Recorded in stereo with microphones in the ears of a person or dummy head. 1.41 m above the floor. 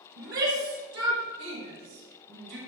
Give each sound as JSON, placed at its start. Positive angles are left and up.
{"t": 0.2, "sound": "a shout", "side_deg": -60, "distance_m": 2.0}